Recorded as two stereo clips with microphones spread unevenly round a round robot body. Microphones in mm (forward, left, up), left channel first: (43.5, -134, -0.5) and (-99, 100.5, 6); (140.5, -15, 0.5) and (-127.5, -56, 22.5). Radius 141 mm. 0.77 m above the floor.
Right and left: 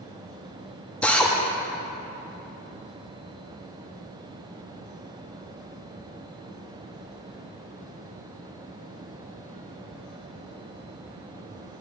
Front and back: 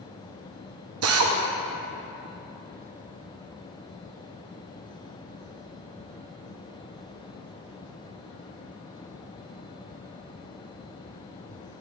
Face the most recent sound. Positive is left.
turn(degrees=-145)